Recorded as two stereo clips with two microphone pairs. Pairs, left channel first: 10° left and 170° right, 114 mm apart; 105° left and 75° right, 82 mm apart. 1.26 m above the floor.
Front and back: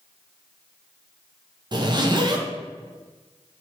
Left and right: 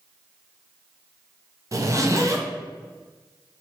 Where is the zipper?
120° right, 0.5 m.